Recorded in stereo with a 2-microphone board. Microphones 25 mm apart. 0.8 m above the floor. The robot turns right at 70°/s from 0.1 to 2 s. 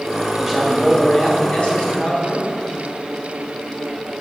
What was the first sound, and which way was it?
A man speaking, 25° right.